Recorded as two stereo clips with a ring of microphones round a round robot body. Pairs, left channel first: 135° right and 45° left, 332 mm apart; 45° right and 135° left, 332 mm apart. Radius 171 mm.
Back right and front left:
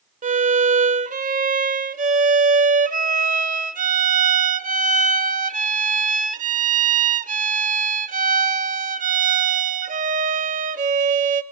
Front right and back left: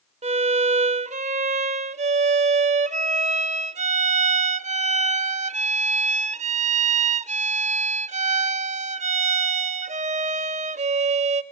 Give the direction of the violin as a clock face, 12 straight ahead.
9 o'clock.